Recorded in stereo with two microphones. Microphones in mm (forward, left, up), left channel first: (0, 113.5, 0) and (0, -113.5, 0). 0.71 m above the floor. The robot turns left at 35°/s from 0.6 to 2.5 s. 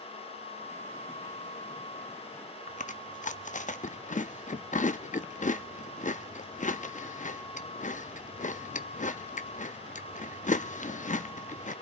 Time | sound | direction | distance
2.7 | chewing | 35° left (ahead or behind) | 0.6 m